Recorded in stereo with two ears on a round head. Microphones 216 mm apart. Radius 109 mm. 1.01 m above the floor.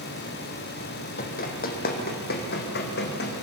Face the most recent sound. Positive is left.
turn(degrees=45)  # may be behind; listen again after turning